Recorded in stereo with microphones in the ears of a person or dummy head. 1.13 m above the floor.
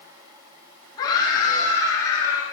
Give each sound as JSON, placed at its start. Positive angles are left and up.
{"t": 1.0, "sound": "a scream", "side_deg": 25, "distance_m": 7.0}